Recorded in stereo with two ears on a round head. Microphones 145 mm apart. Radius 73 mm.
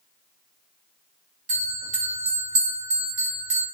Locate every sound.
1.5 s a bell: 40° right (ahead or behind), 1.4 m